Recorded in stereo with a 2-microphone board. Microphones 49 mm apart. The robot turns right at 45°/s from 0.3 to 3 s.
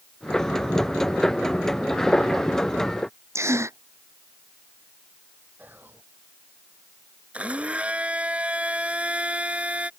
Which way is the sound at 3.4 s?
70° right (ahead or behind).